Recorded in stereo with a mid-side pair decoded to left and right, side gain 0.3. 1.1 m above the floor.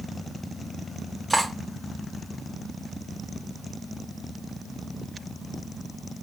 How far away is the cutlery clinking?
About 0.7 m.